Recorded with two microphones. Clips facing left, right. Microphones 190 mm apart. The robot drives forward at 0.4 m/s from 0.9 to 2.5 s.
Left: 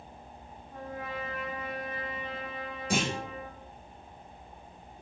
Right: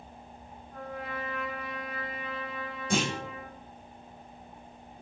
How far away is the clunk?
About 1.6 m.